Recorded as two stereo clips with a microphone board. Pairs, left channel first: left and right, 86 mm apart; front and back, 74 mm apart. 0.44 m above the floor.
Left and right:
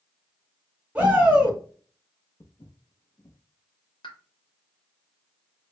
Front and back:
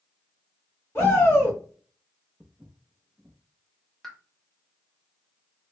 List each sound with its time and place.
0.9 s a shout: 30° right, 1.7 m
2.4 s footsteps: 105° left, 0.7 m
4.0 s a pop: 85° left, 0.7 m